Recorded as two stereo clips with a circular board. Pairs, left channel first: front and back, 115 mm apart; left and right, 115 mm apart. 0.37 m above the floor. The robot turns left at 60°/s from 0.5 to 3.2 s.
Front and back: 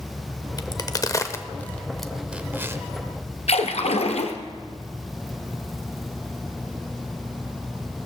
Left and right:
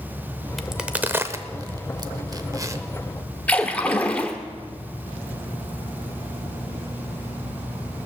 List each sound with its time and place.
0.6 s a crack: straight ahead, 0.7 m; by 2.8 s 130° right, 0.7 m
3.5 s a splash: 15° left, 1.3 m